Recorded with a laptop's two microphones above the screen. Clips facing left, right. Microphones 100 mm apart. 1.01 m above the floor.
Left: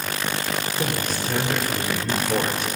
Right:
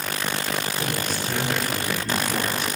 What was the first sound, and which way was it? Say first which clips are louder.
A man speaking: left 2 dB; 55° left (ahead or behind).